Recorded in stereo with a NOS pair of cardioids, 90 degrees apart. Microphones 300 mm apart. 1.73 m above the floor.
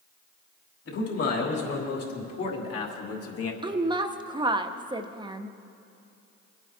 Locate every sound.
0.8 s a man speaking: 55° left, 4 m
3.6 s a woman speaking: 15° right, 0.9 m